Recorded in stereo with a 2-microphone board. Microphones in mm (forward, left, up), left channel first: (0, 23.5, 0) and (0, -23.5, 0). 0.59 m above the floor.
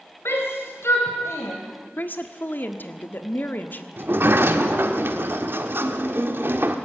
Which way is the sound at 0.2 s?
60° left (ahead or behind).